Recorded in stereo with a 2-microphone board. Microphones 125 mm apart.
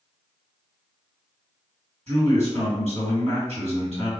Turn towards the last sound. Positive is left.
turn(degrees=-60)  # may be behind; listen again after turning